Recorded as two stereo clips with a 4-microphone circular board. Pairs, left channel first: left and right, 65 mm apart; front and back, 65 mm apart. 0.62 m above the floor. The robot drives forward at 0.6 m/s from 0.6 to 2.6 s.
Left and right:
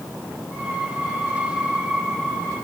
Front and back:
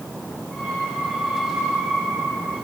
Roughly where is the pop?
No pop in this recording.